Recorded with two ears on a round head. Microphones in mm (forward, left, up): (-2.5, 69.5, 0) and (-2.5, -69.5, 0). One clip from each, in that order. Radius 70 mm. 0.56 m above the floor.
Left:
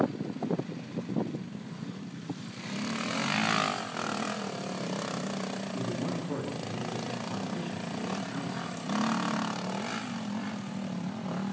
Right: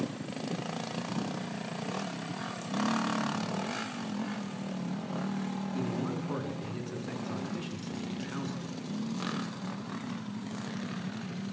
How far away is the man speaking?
About 8 m.